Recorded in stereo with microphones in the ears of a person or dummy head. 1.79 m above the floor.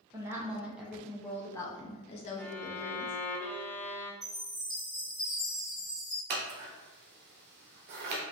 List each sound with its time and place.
0.1 s a woman speaking: 15° right (ahead or behind), 1.3 m; by 3.2 s 65° left (ahead or behind), 1.1 m
2.4 s a violin: 10° left (ahead or behind), 0.9 m
4.2 s a chime: centre (ahead or behind), 1.8 m
6.3 s scissors: 50° right (ahead or behind), 0.8 m